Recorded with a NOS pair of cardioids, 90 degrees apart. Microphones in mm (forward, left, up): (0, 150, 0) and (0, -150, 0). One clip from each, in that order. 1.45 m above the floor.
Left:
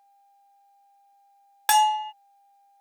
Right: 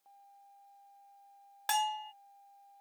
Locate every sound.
1.7 s a bell: 50° left